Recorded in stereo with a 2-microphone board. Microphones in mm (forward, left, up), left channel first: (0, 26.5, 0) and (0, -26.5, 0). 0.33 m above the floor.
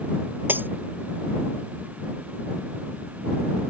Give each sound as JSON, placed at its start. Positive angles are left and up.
{"t": 0.5, "sound": "breaking glass", "side_deg": -40}